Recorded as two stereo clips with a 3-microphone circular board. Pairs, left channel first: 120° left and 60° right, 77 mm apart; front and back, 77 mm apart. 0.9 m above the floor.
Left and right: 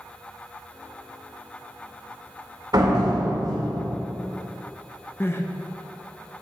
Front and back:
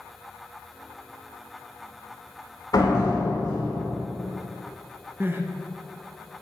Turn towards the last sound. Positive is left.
turn(degrees=150)